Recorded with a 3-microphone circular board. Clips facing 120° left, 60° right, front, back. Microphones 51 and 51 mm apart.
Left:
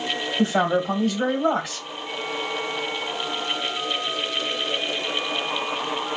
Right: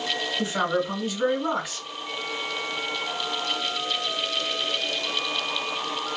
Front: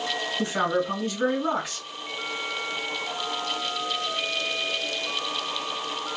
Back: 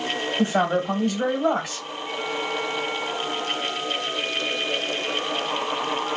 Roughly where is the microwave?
No microwave in this recording.